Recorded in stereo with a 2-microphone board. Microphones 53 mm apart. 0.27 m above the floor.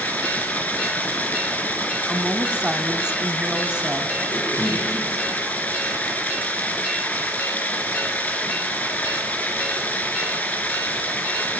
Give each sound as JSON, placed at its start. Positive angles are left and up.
{"t": 0.0, "sound": "running water", "side_deg": 30, "distance_m": 3.0}
{"t": 2.1, "sound": "a woman speaking", "side_deg": -15, "distance_m": 1.6}
{"t": 4.3, "sound": "a cough", "side_deg": 60, "distance_m": 3.5}